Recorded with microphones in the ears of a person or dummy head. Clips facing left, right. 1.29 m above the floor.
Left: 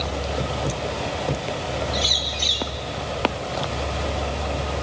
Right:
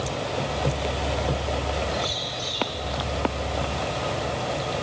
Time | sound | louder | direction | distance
1.9 | a bird | left 1 dB | 70° left (ahead or behind) | 3 m